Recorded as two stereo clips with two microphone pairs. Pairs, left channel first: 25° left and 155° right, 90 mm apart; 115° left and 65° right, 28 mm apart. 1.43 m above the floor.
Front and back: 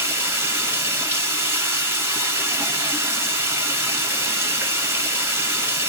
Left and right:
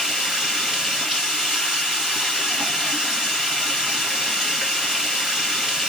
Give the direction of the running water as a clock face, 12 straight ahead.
3 o'clock.